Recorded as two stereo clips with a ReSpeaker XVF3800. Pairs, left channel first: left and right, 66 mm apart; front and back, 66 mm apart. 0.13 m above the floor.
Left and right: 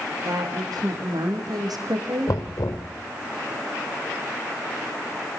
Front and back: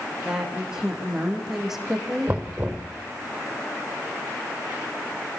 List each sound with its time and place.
0.2 s a woman speaking: 100° right, 6 m; by 2.4 s 90° right, 5 m
2.3 s knocking: 115° left, 2.5 m